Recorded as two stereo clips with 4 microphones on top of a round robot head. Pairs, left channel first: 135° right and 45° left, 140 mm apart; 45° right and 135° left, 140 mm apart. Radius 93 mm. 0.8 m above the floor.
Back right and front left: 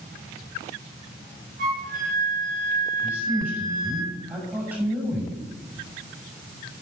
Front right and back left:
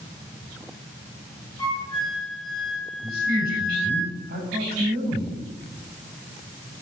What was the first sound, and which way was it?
A flute, 15° left.